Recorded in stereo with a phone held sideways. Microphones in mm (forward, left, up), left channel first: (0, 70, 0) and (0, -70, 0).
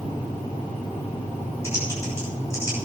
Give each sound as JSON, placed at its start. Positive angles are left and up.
{"t": 1.6, "sound": "typing on a keyboard", "side_deg": 20, "distance_m": 8.5}